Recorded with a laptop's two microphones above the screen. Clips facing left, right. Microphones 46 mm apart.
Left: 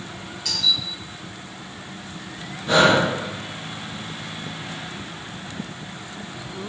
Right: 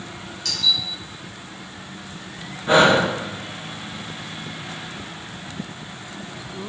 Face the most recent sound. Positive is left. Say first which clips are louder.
# right 1 dB
turn(degrees=-25)  # may be behind; listen again after turning